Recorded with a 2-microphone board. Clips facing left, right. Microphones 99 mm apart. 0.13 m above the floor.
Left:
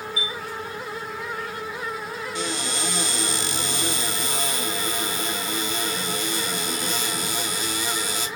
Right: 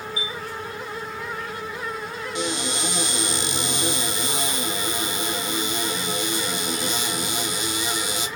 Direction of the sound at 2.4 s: 20° right (ahead or behind).